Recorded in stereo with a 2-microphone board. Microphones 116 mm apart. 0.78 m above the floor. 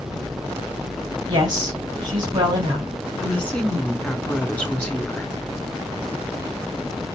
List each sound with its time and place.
1.3 s a woman speaking: 40° right (ahead or behind), 4 m
3.2 s a woman speaking: 15° left (ahead or behind), 1.2 m